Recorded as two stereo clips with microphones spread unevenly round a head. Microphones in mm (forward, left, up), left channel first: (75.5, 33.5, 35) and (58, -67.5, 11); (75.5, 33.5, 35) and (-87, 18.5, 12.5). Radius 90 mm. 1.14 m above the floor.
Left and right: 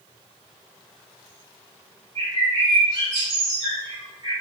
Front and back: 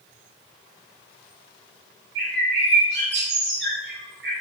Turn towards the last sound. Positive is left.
turn(degrees=-165)